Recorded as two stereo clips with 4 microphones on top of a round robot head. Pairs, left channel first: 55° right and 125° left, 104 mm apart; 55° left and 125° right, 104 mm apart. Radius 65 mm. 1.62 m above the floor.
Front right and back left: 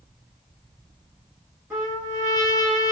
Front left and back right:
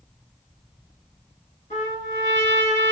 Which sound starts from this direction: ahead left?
A trumpet, at 1.7 s.